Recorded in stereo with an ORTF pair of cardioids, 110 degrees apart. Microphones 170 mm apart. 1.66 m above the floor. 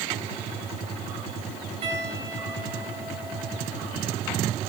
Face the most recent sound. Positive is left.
turn(degrees=-40)